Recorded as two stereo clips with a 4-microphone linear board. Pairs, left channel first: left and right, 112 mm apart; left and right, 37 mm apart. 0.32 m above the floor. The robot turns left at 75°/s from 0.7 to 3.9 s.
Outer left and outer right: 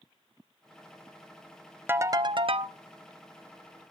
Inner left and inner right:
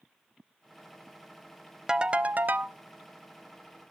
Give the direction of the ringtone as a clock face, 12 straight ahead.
1 o'clock.